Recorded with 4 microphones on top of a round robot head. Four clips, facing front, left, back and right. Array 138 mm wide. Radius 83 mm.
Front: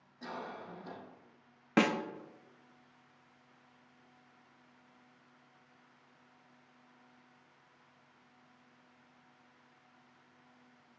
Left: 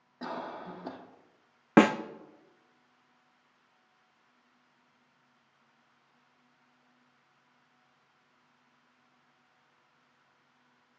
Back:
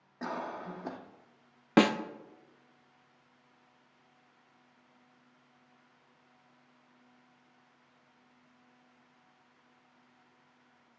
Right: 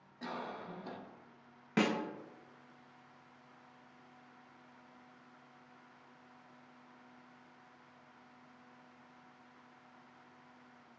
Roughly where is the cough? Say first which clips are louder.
Left 4 dB, back 6 dB; behind left.